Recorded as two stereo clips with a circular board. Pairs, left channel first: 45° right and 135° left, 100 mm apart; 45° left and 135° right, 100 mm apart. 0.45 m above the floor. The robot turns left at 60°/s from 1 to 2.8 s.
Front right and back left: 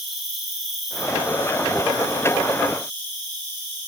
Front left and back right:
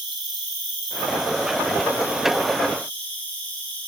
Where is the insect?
140° right, 1.4 m; by 3.9 s 115° left, 1.4 m.